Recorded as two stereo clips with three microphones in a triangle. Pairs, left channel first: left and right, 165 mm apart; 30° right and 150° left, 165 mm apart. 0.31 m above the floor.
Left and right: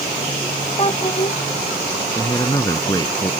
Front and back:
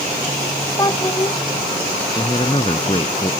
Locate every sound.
0.8 s a child speaking: 35° left
2.1 s a man speaking: 25° left